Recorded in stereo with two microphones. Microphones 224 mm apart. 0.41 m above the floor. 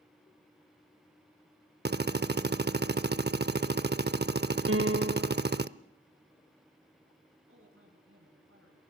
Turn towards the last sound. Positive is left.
turn(degrees=-75)  # may be behind; listen again after turning